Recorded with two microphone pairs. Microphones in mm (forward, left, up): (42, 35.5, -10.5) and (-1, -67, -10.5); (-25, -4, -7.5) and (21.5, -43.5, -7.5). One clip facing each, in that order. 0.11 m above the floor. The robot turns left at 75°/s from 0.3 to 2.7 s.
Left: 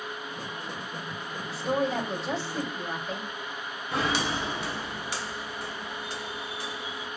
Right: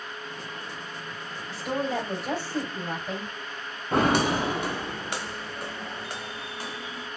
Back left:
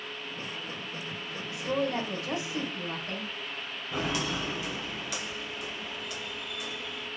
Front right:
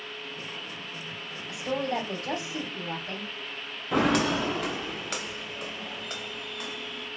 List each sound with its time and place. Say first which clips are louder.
1.5 s a woman speaking: left 1 dB, even; 15° right, 4 m; by 3.3 s 105° right, 4 m
3.9 s footsteps: right 6 dB, front right 8 dB; 70° right, 0.5 m; by 7.1 s 85° right, 3 m